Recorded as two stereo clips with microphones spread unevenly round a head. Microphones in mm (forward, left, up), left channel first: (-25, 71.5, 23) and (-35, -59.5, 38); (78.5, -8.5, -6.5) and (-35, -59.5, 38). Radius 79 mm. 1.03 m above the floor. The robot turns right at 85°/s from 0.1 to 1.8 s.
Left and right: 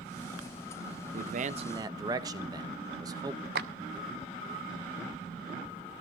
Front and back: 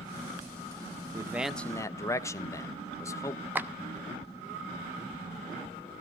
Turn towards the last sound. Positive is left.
turn(degrees=-80)